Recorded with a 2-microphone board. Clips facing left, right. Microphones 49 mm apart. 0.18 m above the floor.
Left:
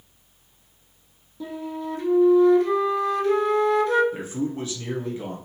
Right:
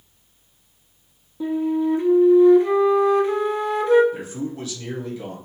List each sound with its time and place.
1.4 s a flute: 20° right (ahead or behind), 0.6 m
4.1 s a man speaking: 30° left (ahead or behind), 1.1 m